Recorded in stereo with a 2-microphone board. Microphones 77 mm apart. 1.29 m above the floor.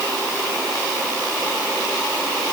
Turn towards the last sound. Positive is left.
No sound to turn to.